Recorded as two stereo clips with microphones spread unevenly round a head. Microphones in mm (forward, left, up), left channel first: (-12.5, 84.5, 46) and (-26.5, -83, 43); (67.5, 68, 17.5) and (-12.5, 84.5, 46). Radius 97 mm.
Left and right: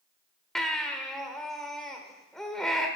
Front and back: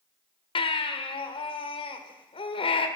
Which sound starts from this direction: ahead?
A baby crying, at 0.6 s.